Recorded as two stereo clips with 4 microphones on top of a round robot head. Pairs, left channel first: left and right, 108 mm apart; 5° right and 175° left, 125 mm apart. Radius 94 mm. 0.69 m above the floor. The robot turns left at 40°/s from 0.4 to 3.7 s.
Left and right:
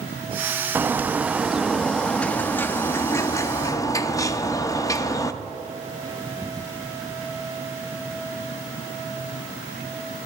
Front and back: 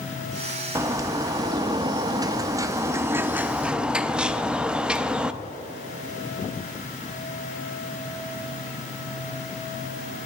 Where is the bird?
140° right, 0.6 m; by 5.3 s 100° left, 0.6 m.